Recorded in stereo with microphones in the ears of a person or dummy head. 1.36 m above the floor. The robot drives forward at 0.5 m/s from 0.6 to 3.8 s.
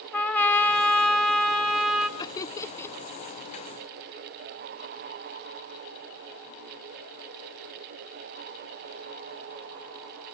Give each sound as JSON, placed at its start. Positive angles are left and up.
{"t": 0.1, "sound": "a trumpet", "side_deg": 10, "distance_m": 0.8}
{"t": 2.2, "sound": "laughter", "side_deg": 25, "distance_m": 0.6}